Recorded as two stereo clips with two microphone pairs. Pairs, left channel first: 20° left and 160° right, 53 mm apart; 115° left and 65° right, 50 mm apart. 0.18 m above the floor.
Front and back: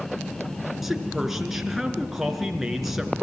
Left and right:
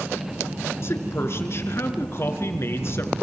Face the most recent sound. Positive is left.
turn(degrees=115)